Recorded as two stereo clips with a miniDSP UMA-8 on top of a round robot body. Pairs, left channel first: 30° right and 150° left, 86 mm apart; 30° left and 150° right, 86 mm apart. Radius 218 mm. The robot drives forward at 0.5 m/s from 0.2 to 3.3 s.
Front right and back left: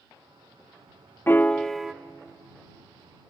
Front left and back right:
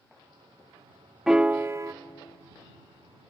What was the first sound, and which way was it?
A piano, 70° right.